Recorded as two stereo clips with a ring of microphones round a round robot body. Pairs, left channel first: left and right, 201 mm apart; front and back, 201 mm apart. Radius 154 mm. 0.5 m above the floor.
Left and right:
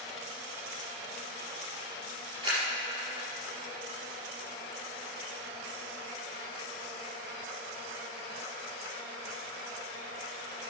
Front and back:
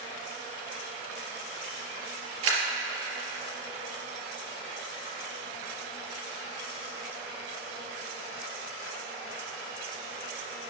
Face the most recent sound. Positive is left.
turn(degrees=-165)